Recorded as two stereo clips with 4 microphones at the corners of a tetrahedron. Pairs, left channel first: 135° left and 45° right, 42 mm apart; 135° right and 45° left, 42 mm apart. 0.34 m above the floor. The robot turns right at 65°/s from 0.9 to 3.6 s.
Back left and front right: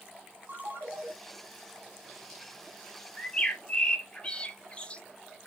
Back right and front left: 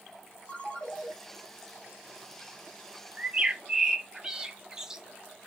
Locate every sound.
0.5 s a ringtone: 80° right, 0.9 m; by 1.1 s 65° right, 0.9 m
3.2 s a bird: 85° left, 0.6 m; by 5.0 s 110° left, 0.6 m